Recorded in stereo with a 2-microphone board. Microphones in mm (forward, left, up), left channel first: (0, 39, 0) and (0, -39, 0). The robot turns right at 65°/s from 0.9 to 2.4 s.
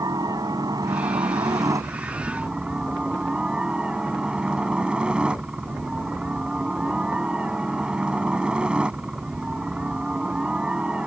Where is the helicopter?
115° right; by 11.1 s 15° right.